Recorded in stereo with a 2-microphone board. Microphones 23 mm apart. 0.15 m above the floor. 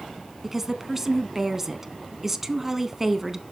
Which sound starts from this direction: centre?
A woman speaking, at 0.4 s.